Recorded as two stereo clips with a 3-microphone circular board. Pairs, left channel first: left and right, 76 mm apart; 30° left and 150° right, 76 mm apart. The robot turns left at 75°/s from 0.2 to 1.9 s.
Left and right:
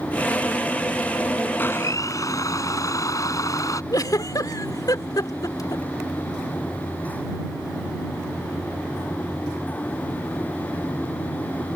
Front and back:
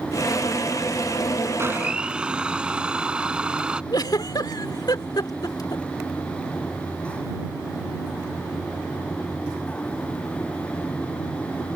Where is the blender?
155° left; by 3.8 s 135° left.